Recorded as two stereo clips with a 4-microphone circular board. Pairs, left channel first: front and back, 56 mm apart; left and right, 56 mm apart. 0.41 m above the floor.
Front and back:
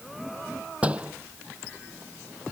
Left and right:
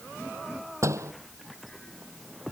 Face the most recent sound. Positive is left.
turn(degrees=-115)